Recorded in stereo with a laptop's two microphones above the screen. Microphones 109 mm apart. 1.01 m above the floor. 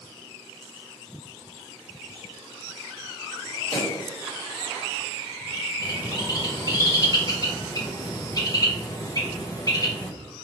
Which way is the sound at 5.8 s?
35° left (ahead or behind).